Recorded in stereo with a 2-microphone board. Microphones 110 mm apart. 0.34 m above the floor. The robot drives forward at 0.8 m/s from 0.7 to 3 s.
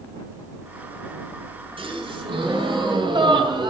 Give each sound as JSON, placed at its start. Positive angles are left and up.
{"t": 1.8, "sound": "a gasp", "side_deg": -50, "distance_m": 3.0}